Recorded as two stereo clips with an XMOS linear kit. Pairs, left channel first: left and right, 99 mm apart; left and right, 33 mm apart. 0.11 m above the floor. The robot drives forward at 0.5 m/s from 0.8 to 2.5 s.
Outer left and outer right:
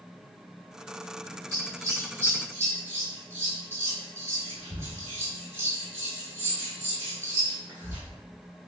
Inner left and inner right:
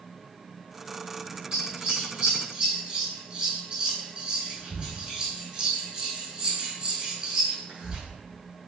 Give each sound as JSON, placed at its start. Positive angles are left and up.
{"t": 1.5, "sound": "scissors", "side_deg": -30, "distance_m": 1.8}